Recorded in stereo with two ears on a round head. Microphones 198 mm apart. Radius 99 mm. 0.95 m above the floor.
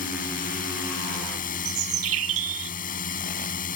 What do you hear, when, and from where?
0.0 s a drone: 40° left (ahead or behind)
1.6 s a bird: 70° right (ahead or behind)